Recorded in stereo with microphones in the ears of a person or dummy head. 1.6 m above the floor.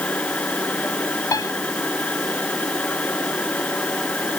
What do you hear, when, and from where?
0.0 s a machine running: 5° left (ahead or behind)
1.3 s a piano: 20° left (ahead or behind)